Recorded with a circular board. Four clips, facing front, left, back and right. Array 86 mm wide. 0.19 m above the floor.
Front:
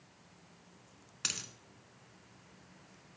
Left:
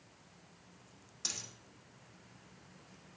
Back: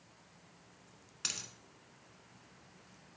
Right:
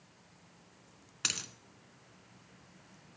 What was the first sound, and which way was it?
A dropped coin, 75° right.